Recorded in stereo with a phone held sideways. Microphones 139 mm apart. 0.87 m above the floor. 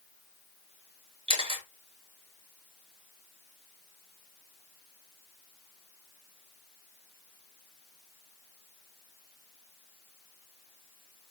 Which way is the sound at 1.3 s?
40° right (ahead or behind).